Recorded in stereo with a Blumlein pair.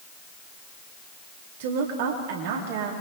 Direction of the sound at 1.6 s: 50° right.